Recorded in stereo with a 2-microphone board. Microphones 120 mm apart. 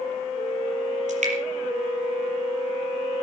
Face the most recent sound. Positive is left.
turn(degrees=-65)  # may be behind; listen again after turning